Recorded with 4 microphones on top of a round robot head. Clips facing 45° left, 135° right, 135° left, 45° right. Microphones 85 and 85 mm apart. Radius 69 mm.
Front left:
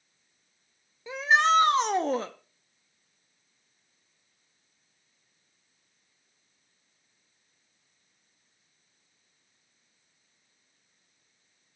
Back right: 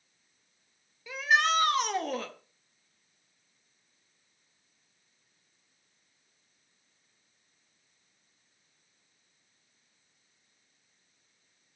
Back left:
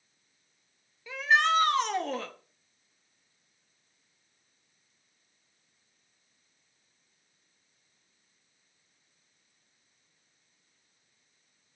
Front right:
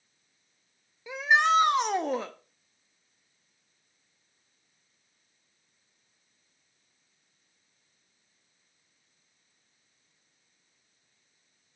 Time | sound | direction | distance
1.1 | a shout | 15° left | 0.7 m